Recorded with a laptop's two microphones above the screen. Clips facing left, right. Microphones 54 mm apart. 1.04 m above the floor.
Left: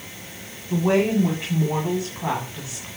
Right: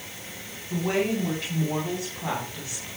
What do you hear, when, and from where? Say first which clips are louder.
0.7 s a woman speaking: left 6 dB; 20° left (ahead or behind), 8 m; by 2.9 s 15° left (ahead or behind), 9.5 m